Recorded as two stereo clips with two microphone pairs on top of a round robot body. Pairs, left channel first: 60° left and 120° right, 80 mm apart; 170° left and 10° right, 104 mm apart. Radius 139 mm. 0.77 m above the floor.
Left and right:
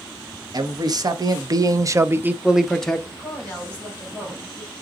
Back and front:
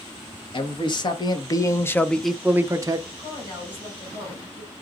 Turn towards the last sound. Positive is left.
turn(degrees=135)